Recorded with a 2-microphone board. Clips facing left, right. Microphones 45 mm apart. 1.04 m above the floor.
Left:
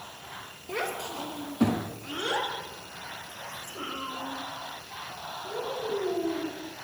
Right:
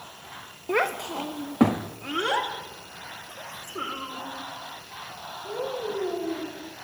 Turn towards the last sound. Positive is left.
turn(degrees=-55)  # may be behind; listen again after turning